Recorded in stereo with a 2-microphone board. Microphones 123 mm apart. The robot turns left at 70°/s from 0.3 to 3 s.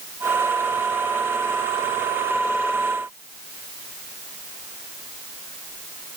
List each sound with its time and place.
Only background noise.